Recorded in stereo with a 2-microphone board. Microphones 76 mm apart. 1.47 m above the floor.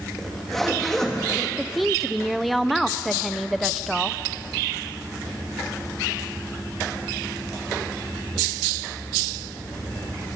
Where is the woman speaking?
Centre (ahead or behind), 0.7 m.